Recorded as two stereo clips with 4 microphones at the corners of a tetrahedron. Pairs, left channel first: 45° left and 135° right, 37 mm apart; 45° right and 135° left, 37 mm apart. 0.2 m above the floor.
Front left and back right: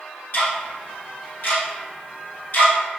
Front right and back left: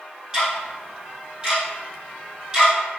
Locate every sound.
0.3 s ticking: 60° left, 1.9 m